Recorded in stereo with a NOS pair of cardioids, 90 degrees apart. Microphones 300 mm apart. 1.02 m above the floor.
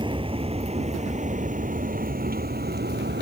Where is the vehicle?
15° right; by 3.2 s 35° right.